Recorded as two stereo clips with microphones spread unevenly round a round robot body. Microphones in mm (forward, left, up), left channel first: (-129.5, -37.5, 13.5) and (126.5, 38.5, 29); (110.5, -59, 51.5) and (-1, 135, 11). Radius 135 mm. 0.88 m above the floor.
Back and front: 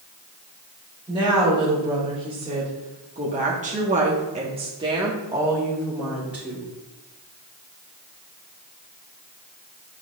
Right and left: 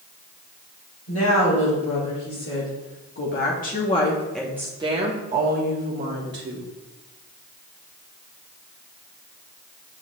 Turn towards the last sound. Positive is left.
turn(degrees=105)